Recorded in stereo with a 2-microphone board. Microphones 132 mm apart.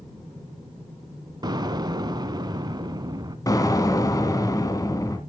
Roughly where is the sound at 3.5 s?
Left.